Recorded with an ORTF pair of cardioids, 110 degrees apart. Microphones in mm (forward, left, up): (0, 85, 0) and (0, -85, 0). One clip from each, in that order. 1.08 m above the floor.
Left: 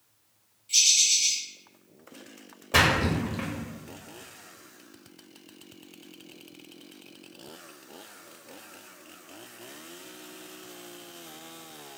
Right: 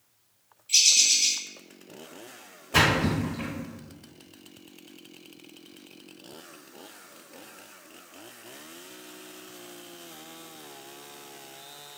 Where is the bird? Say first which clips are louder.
Right 1 dB; 20° right, 0.9 m.